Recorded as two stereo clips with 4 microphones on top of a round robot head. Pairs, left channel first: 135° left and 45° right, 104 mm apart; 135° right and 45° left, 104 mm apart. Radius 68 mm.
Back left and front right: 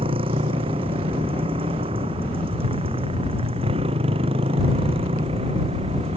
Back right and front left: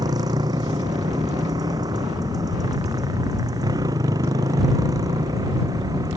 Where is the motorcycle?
10° right.